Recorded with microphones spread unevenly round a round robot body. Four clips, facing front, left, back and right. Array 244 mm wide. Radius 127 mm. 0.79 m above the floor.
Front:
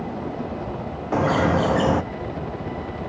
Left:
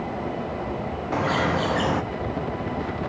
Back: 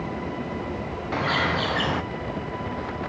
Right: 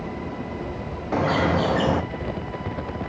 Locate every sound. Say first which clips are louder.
1.1 s a bird: right 2 dB, front 6 dB; 20° right, 0.6 m